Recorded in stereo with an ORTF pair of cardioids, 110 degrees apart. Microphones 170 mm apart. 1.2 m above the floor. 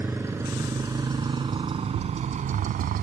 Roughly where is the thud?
Ahead right.